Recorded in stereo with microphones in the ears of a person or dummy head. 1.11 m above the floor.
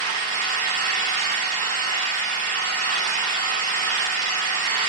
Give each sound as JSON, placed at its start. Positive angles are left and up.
{"t": 0.0, "sound": "an engine running", "side_deg": -45, "distance_m": 7.0}